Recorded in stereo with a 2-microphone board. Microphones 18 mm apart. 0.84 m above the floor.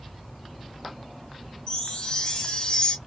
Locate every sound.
1.7 s a chime: 45° left (ahead or behind), 0.8 m